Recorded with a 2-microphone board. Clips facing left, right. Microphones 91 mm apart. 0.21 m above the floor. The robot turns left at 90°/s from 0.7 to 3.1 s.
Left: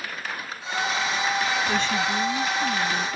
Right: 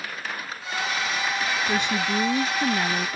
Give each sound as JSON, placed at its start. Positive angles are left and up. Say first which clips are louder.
{"t": 1.7, "sound": "a woman speaking", "louder": "even", "azimuth_deg": -10}